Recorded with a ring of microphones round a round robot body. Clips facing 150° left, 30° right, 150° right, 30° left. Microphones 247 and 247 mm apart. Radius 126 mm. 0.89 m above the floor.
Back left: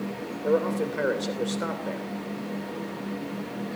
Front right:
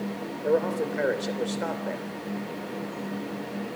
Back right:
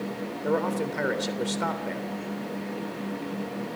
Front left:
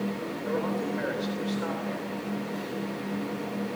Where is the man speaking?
130° right, 3 m.